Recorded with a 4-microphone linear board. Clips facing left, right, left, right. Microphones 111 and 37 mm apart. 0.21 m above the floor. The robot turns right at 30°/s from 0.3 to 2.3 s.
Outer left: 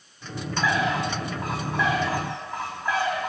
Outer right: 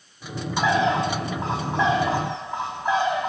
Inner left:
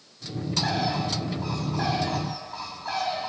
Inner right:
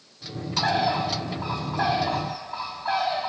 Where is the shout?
I don't hear a shout.